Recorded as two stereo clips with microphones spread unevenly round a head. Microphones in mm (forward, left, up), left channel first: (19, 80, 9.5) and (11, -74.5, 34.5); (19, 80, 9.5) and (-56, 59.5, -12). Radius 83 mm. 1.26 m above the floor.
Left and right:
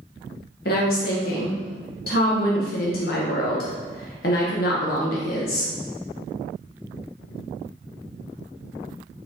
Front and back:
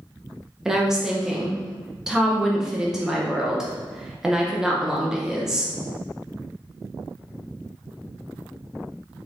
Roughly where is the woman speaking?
Behind left.